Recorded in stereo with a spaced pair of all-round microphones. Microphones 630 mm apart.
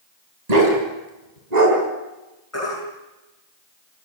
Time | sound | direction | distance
0.5 | a dog barking | 85° right | 4 m
2.5 | a baby crying | 20° left (ahead or behind) | 9 m